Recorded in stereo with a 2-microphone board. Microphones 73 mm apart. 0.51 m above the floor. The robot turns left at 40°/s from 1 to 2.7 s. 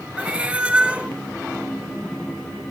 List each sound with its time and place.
0.2 s a cat meowing: 20° right (ahead or behind), 0.9 m; by 1.1 s 15° right (ahead or behind), 0.9 m